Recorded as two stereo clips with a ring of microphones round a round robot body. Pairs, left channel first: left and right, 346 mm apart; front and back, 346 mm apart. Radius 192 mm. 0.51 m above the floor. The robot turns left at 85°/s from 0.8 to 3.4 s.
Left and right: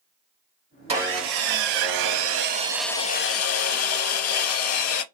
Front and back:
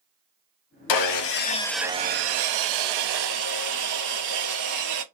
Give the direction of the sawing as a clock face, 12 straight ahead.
1 o'clock.